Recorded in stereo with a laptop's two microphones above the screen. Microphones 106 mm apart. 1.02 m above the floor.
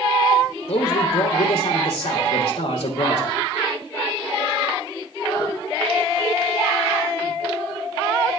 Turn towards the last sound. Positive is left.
turn(degrees=65)  # may be behind; listen again after turning